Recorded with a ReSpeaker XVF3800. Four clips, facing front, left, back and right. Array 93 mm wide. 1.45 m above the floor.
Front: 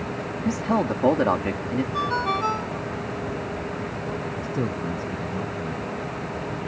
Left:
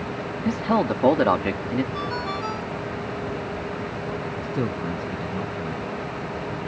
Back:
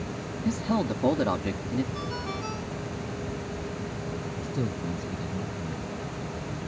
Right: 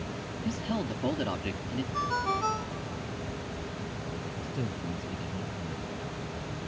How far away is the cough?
No cough in this recording.